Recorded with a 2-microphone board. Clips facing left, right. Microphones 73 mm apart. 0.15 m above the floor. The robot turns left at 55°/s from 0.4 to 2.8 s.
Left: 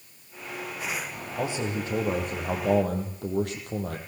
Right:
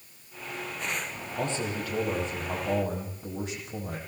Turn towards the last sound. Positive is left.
turn(degrees=100)